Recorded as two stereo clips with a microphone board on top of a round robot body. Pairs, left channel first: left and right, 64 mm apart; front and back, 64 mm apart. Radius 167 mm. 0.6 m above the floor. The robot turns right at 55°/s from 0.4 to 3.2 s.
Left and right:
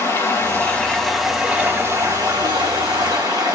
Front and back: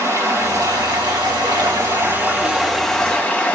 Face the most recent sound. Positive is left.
turn(degrees=-65)